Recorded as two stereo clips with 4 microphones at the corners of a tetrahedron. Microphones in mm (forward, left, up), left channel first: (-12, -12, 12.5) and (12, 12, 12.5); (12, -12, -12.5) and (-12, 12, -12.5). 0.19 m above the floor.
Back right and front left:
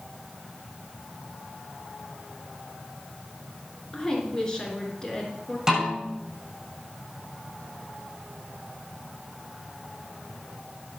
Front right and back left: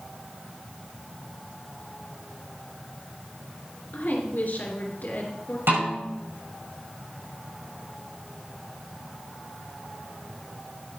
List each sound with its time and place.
3.9 s a woman speaking: 65° right, 2.5 m
5.7 s a snare drum: 120° left, 6.5 m